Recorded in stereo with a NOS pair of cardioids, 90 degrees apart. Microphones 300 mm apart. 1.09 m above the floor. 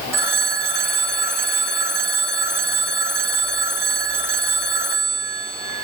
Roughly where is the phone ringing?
Ahead.